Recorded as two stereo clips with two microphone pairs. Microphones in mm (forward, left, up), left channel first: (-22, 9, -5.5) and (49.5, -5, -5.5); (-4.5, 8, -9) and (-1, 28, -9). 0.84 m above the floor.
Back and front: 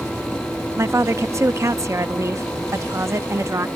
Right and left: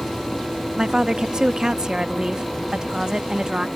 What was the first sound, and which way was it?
A woman speaking, 35° left.